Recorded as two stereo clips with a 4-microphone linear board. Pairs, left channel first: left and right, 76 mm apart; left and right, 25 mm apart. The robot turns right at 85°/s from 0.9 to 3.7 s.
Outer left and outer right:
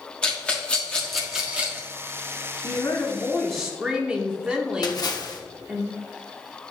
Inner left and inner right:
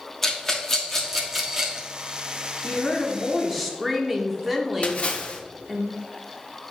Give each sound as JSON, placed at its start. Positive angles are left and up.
{"t": 0.2, "sound": "a rattle", "side_deg": 15, "distance_m": 1.2}
{"t": 2.6, "sound": "a woman speaking", "azimuth_deg": 105, "distance_m": 1.3}
{"t": 4.8, "sound": "a splash", "side_deg": 55, "distance_m": 0.9}